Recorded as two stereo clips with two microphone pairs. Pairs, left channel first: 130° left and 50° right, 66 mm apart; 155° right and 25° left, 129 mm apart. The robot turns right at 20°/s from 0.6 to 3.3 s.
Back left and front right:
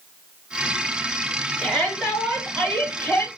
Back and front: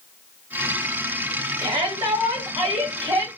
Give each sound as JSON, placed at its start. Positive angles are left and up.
{"t": 1.6, "sound": "a shout", "azimuth_deg": 35, "distance_m": 1.8}